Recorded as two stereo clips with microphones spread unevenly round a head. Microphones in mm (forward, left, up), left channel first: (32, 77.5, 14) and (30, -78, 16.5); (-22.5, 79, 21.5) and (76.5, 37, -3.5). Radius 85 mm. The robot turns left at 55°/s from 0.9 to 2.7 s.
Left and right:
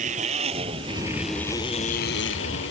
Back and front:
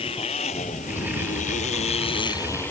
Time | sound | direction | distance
0.0 | a motorcycle | 145° right | ?